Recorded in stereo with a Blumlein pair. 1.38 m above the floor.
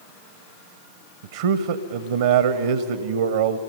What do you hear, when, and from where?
1.2 s a man speaking: 60° right, 0.8 m